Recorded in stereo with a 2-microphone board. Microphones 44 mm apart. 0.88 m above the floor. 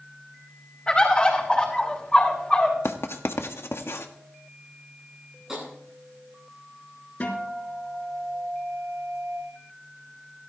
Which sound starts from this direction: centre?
Tapping, at 5.5 s.